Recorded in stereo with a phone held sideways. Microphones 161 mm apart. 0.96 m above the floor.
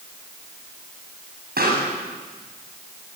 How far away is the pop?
About 8 m.